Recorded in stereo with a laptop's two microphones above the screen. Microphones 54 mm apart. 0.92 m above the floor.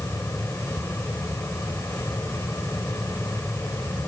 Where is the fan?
85° left, 2 m.